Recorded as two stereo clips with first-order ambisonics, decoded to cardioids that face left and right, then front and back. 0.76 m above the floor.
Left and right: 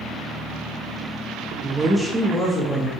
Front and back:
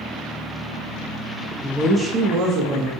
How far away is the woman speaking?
About 0.7 m.